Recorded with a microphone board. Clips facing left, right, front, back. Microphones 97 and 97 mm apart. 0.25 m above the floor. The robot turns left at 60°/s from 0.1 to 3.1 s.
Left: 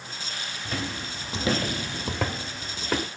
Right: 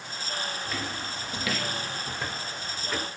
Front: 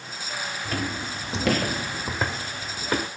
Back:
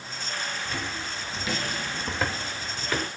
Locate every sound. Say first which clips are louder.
0.7 s footsteps: left 1 dB, front 4 dB; 40° left, 1.7 m; by 3.1 s 45° left, 2 m